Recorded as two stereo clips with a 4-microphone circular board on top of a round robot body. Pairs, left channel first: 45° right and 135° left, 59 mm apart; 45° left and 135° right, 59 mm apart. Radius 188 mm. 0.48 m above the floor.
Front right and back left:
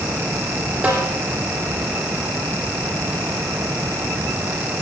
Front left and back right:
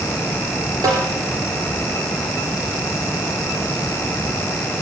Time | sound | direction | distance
0.8 | a snare drum | 150° right | 5 m